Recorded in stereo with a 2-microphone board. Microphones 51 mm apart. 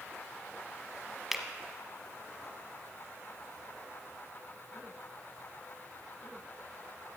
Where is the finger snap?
5° right (ahead or behind), 1.0 m.